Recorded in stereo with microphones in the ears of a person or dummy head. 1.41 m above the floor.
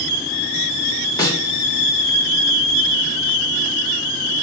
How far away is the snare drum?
About 1.4 m.